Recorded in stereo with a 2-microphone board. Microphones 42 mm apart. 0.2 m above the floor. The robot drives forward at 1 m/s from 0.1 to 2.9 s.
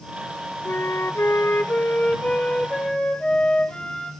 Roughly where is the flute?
Left.